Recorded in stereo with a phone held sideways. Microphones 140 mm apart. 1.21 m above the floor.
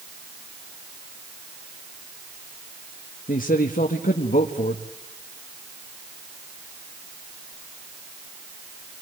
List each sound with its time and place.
3.3 s a man speaking: 85° left, 1.6 m